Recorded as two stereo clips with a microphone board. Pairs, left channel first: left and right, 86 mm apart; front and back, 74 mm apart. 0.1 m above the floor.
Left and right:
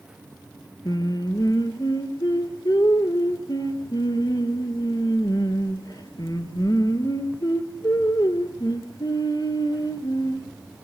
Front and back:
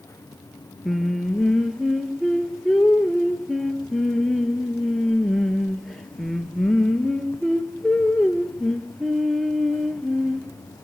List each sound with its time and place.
0.8 s singing: 85° left, 1.9 m